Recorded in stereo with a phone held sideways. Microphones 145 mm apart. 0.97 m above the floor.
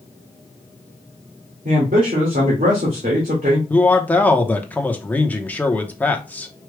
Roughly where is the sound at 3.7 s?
Centre.